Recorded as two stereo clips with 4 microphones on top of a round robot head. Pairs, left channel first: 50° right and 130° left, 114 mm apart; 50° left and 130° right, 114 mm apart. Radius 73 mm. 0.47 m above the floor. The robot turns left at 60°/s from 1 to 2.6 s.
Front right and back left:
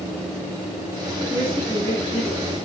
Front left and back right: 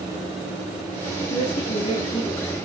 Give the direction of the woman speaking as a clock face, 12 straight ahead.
10 o'clock.